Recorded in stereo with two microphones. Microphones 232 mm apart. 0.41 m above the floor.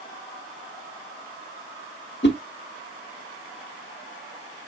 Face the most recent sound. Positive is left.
turn(degrees=50)  # may be behind; listen again after turning